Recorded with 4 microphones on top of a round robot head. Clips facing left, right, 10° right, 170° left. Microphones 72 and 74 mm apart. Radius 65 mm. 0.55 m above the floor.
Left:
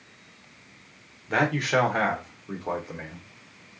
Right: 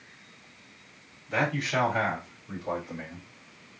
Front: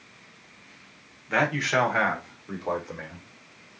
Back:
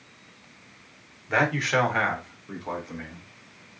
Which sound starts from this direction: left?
A man speaking, at 1.3 s.